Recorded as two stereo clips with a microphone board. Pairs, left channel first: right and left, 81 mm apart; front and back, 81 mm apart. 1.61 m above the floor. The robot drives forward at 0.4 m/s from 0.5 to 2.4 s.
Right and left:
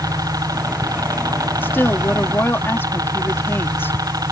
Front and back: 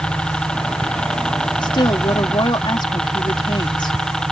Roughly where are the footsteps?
I don't hear footsteps.